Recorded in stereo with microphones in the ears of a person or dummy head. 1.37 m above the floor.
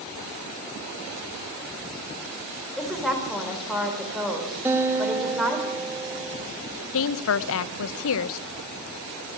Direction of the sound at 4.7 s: 10° right (ahead or behind).